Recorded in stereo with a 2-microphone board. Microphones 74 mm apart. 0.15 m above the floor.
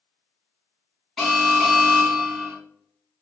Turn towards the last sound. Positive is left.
turn(degrees=0)  # may be behind; listen again after turning